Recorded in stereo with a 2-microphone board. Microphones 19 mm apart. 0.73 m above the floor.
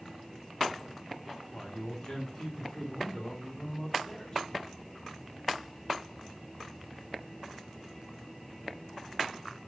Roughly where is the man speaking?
Left.